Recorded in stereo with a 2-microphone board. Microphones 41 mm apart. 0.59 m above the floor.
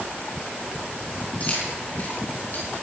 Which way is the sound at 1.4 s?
35° left (ahead or behind).